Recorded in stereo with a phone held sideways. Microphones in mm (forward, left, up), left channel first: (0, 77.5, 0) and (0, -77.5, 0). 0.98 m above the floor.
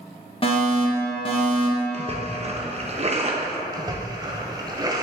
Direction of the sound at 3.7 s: 25° right (ahead or behind).